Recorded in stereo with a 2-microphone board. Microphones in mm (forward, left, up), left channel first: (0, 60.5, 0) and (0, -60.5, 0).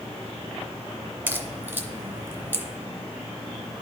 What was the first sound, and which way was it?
A crack, 15° right (ahead or behind).